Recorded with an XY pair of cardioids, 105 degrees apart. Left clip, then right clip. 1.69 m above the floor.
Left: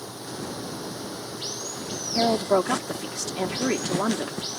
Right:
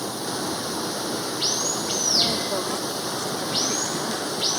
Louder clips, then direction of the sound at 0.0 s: Right 7 dB; 55° right.